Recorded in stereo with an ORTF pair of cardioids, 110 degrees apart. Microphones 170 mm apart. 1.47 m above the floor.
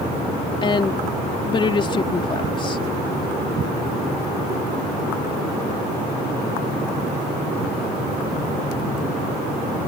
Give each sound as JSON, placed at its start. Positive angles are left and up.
{"t": 0.6, "sound": "a woman speaking", "azimuth_deg": 30}